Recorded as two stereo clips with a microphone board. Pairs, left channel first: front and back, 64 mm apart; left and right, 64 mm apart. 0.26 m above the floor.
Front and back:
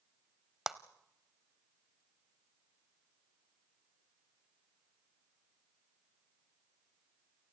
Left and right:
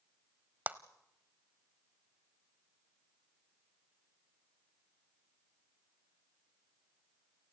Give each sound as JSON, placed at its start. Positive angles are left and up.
{"t": 0.7, "sound": "a clap", "azimuth_deg": -105, "distance_m": 0.9}